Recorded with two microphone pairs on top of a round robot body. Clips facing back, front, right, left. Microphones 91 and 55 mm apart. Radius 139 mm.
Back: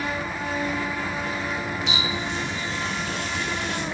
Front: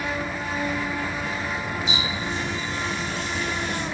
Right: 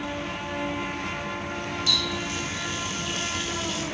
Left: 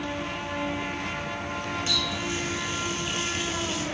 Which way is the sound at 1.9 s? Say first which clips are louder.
Even, even; 155° left.